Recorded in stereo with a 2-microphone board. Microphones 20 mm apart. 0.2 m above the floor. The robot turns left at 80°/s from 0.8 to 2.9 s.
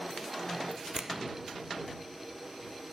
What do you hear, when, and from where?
0.9 s a finger snap: 35° right (ahead or behind); by 1.1 s 20° right (ahead or behind)